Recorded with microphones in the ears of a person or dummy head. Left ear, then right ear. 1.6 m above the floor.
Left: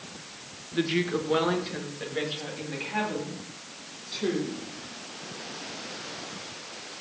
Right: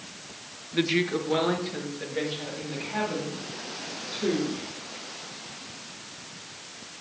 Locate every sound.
0.7 s a woman speaking: 20° right (ahead or behind), 0.9 m; by 4.6 s 20° left (ahead or behind), 6.5 m